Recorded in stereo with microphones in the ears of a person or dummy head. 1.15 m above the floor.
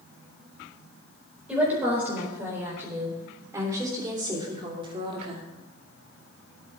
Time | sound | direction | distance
1.5 | a woman speaking | 5° right (ahead or behind) | 4.5 m